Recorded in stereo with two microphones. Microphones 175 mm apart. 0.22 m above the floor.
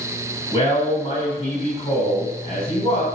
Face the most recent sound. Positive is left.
turn(degrees=30)  # may be behind; listen again after turning